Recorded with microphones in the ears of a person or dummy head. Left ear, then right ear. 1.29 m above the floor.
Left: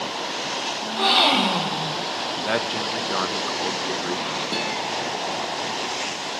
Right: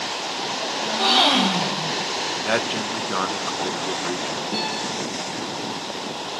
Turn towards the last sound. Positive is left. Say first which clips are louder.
# right 1 dB
turn(degrees=55)  # may be behind; listen again after turning